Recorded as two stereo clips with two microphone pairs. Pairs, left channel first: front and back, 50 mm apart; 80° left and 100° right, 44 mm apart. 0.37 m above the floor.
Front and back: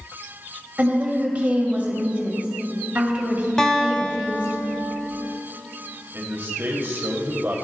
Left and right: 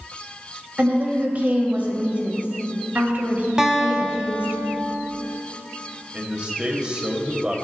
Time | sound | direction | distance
0.8 | a woman speaking | 130° right | 1.6 m
3.6 | a guitar | 55° right | 1.0 m
6.1 | a man speaking | 160° right | 1.5 m